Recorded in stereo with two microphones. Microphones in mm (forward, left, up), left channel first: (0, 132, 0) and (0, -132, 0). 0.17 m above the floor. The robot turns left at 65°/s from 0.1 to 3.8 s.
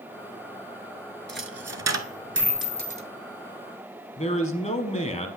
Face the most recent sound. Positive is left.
turn(degrees=25)  # may be behind; listen again after turning